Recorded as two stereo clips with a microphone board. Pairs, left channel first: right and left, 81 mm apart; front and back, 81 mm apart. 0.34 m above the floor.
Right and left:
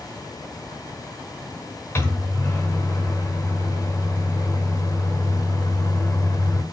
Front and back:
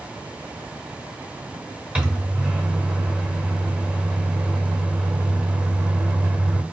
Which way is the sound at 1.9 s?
115° right.